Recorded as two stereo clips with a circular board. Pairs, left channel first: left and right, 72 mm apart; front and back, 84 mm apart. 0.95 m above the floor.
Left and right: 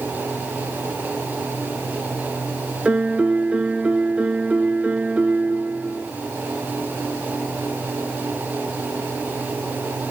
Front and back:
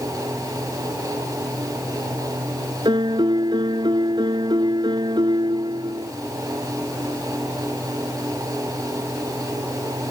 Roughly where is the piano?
Behind.